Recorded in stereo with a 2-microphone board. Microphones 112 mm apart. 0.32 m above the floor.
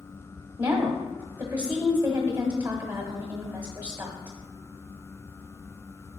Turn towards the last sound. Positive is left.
turn(degrees=-15)  # may be behind; listen again after turning